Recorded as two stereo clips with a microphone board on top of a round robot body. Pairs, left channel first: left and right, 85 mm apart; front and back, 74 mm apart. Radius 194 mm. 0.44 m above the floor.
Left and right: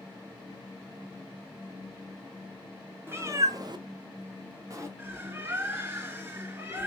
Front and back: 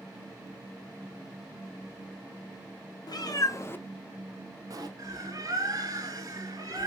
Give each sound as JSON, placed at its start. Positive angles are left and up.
{"t": 3.1, "sound": "a cat meowing", "azimuth_deg": -25, "distance_m": 1.2}
{"t": 5.0, "sound": "a bird", "azimuth_deg": -150, "distance_m": 2.5}